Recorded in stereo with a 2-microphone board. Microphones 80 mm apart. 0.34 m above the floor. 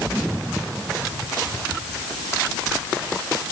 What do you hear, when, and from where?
Only background noise.